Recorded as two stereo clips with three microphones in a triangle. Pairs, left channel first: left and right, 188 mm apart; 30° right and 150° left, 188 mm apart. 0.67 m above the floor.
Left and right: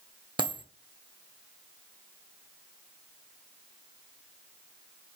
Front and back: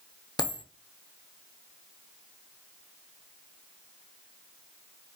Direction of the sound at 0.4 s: 70° right.